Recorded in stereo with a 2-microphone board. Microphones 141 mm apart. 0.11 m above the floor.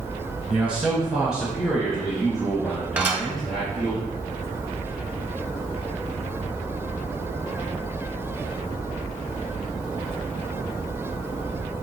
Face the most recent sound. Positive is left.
turn(degrees=-15)  # may be behind; listen again after turning